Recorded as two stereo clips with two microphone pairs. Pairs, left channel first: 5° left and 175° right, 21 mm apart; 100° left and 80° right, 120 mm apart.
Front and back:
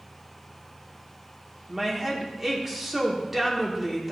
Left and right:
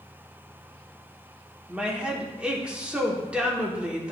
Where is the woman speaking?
140° right, 1.1 m.